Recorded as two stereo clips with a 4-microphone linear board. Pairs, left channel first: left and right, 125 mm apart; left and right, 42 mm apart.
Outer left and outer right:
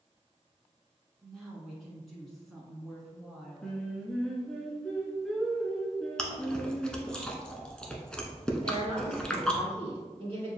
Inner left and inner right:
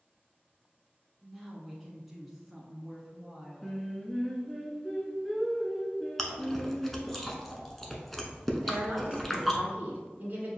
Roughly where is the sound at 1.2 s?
Centre.